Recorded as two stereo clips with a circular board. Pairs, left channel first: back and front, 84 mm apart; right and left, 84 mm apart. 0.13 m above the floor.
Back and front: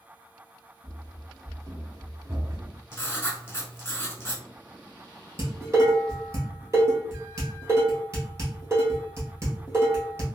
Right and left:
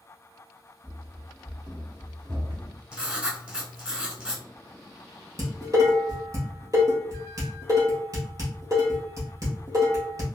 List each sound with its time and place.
0.8 s running footsteps: 50° left, 1.1 m; by 2.8 s 55° left, 2 m
2.9 s writing: 155° left, 0.8 m
5.4 s dishes clattering: 50° left, 1.7 m